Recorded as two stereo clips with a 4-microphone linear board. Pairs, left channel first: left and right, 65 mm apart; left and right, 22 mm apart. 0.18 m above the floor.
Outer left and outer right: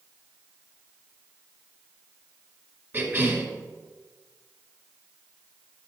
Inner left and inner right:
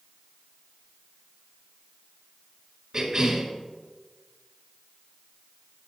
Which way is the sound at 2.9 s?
25° right (ahead or behind).